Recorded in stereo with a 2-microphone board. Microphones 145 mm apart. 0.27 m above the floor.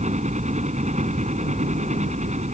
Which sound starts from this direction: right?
A helicopter, at 0.0 s.